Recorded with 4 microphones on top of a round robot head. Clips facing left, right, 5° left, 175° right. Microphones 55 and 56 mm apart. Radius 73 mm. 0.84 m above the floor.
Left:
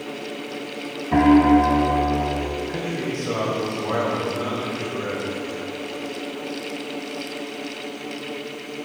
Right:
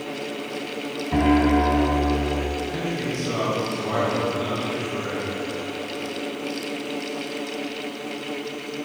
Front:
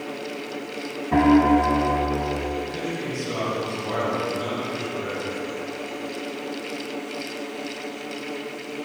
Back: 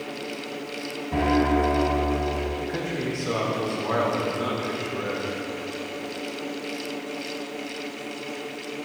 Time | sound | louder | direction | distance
1.1 | a piano | left 5 dB, front 5 dB | 45° left | 0.9 m
2.6 | a man speaking | even, even | 150° left | 3 m